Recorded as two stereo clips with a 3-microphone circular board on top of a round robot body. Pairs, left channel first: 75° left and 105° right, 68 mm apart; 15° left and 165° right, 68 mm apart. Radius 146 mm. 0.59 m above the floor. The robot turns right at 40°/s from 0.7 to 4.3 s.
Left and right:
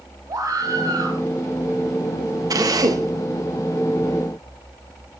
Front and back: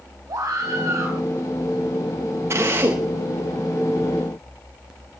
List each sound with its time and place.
0.3 s a scream: 135° right, 4 m; by 1.2 s 115° right, 4 m
2.5 s a drill: 120° right, 3 m; by 3.1 s 95° right, 3 m